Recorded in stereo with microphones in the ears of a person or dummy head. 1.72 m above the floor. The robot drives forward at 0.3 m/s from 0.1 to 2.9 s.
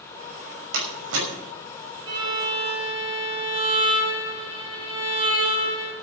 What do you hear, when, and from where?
0.7 s a door slam: 75° right (ahead or behind), 5.5 m
2.1 s a violin: 25° right (ahead or behind), 2.5 m